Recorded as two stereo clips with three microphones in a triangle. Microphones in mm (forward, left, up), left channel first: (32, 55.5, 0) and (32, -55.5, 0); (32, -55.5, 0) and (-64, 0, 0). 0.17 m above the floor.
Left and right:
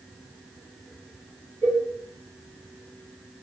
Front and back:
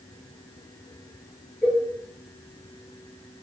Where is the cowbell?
55° left, 1.7 m.